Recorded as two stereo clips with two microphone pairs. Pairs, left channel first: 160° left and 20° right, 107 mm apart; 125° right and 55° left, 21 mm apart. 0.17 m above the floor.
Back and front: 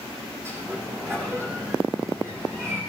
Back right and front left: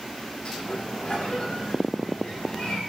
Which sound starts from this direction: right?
A sliding door, at 0.5 s.